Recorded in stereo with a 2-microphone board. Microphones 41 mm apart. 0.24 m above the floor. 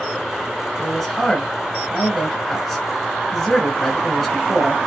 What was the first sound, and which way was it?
A man speaking, 10° left (ahead or behind).